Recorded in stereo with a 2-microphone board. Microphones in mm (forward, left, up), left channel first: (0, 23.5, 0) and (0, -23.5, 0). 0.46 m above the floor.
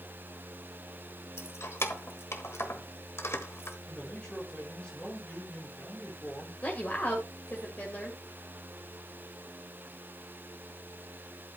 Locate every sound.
1.4 s keys jangling: 65° left (ahead or behind), 1.2 m
3.9 s a man speaking: 15° left (ahead or behind), 5.5 m
6.6 s a woman speaking: 35° left (ahead or behind), 1.8 m